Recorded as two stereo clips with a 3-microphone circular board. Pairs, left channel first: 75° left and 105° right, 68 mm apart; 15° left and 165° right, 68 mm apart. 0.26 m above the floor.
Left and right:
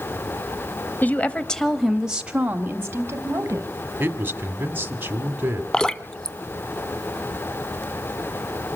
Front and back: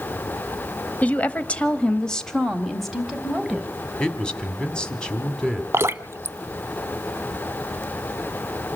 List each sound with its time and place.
1.0 s a woman speaking: 55° left, 1.1 m; by 3.7 s 80° right, 1.6 m
4.0 s a man speaking: 60° right, 1.6 m
5.7 s dripping: 150° left, 0.7 m